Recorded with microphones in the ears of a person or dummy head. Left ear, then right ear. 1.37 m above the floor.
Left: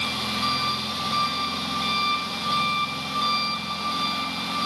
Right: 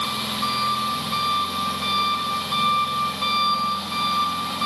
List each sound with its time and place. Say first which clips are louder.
0.0 s an engine running: right 1 dB; centre (ahead or behind), 1.3 m